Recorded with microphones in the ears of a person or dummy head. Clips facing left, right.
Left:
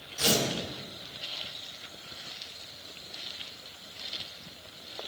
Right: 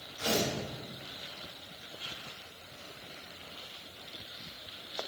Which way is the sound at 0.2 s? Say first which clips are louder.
Left 3 dB; 75° left (ahead or behind).